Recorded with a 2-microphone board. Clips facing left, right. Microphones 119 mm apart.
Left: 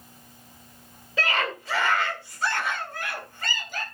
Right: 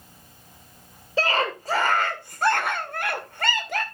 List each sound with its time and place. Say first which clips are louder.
1.2 s a scream: right 4 dB; 30° right (ahead or behind), 2 m; by 3.8 s 75° right (ahead or behind), 2 m